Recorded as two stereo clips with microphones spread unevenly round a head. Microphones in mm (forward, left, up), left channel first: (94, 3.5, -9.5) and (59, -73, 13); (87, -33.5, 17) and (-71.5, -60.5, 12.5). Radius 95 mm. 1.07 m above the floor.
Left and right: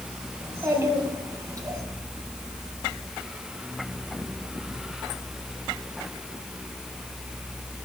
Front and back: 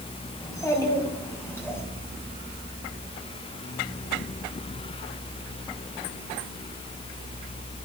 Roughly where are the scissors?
No scissors in this recording.